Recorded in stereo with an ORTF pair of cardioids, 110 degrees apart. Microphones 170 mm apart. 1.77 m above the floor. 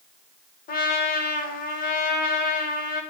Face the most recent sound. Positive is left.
turn(degrees=55)